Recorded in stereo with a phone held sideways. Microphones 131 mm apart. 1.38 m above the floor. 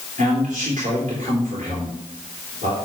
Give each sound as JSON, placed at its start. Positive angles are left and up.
{"t": 0.2, "sound": "a man speaking", "side_deg": -75, "distance_m": 3.5}